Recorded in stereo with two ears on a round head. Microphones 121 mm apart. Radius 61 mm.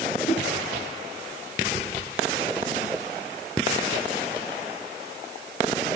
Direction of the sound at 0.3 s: 45° left (ahead or behind).